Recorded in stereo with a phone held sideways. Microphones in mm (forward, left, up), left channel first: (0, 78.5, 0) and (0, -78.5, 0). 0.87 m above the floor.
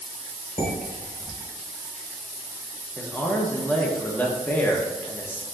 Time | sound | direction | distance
0.6 | dishes clattering | 55° left (ahead or behind) | 1.6 m
3.0 | a man speaking | 10° left (ahead or behind) | 0.8 m